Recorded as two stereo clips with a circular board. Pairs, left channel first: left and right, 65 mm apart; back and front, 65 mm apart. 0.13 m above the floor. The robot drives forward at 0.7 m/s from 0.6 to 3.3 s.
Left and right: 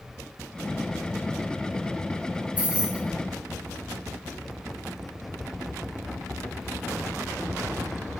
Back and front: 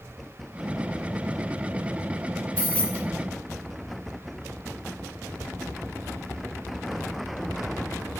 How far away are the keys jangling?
About 0.8 m.